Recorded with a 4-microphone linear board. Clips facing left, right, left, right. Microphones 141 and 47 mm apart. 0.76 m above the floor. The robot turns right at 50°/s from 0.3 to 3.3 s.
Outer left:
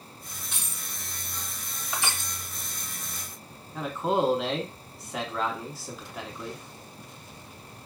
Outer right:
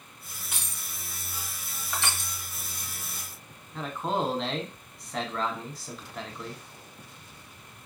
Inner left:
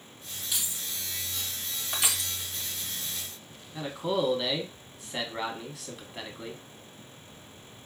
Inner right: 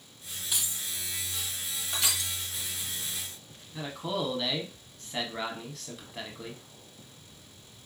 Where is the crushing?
20° left (ahead or behind), 0.9 m; by 2.3 s centre (ahead or behind), 0.9 m.